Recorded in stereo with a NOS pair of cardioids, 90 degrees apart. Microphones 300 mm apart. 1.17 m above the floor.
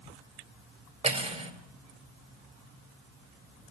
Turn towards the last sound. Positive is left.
turn(degrees=-20)